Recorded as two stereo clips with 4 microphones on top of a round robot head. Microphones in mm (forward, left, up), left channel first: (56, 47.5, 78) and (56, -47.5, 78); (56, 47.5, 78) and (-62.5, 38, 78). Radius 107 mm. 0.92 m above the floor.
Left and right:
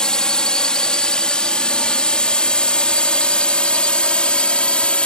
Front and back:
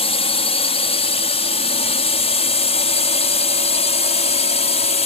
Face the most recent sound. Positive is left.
turn(degrees=15)